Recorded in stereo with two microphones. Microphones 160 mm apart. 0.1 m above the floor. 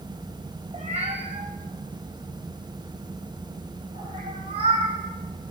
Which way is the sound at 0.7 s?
45° right (ahead or behind).